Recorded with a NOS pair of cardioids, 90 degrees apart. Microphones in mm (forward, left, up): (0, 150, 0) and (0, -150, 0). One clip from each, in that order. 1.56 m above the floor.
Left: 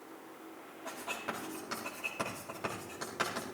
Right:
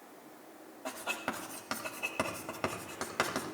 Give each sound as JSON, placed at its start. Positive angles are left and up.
{"t": 0.8, "sound": "writing", "azimuth_deg": -55, "distance_m": 4.0}